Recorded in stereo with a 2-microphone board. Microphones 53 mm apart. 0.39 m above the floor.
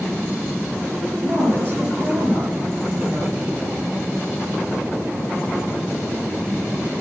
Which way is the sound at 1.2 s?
30° right (ahead or behind).